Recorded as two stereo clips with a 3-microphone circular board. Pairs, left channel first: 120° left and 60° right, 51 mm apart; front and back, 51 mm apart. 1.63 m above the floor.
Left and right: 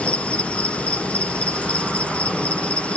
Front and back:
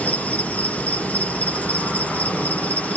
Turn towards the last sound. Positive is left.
turn(degrees=55)